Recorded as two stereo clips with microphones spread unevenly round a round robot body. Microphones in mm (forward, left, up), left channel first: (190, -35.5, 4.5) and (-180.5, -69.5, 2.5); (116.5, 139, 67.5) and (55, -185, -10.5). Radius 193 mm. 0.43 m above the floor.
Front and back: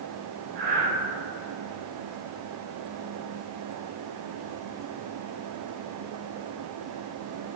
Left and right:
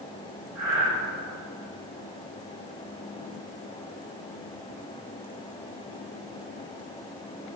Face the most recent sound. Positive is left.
turn(degrees=175)